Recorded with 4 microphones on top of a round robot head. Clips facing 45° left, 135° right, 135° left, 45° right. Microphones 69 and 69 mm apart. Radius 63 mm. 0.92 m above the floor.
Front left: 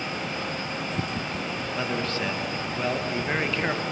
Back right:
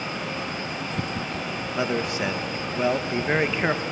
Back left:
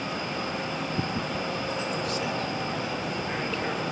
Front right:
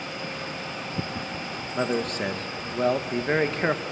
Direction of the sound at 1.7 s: 65° right.